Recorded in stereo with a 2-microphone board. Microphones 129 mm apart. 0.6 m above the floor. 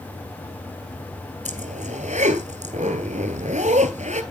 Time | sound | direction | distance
1.4 | a zipper | 70° right (ahead or behind) | 2.5 m